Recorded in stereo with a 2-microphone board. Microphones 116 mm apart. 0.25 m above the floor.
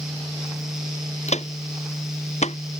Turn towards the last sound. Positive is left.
turn(degrees=75)  # may be behind; listen again after turning